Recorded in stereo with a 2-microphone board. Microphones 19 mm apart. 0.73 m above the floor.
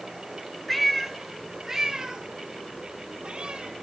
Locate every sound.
0.7 s a cat meowing: 10° left (ahead or behind), 1.5 m; by 3.7 s 55° right (ahead or behind), 2.5 m